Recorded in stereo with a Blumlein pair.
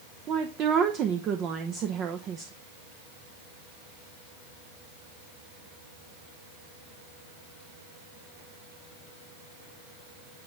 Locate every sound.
0.3 s a woman speaking: 30° right, 0.8 m